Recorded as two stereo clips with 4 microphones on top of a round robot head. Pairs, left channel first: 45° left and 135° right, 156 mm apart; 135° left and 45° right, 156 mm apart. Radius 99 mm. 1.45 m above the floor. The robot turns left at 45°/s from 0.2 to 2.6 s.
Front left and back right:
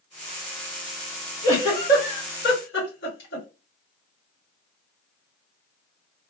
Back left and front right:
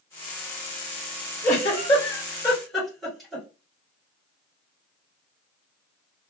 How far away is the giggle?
About 2 m.